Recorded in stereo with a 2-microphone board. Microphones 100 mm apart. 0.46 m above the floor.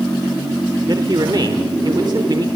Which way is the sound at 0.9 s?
45° right (ahead or behind).